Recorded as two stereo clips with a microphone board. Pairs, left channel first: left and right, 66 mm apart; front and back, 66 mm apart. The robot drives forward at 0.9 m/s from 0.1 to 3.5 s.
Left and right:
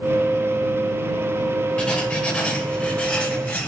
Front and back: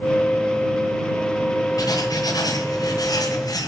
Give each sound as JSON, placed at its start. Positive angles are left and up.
{"t": 1.8, "sound": "writing", "azimuth_deg": 20, "distance_m": 8.0}